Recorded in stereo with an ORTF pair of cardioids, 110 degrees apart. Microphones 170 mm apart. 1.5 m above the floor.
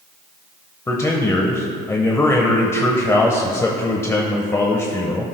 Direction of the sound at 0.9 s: 15° left.